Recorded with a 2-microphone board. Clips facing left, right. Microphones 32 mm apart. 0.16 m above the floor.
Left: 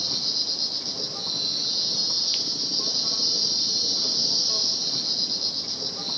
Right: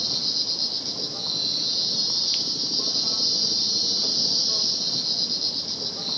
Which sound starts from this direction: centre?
An insect, at 0.0 s.